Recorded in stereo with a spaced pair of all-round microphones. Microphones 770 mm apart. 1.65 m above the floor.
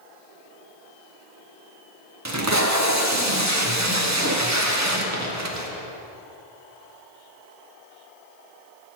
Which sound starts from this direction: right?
Tape being pulled, at 2.2 s.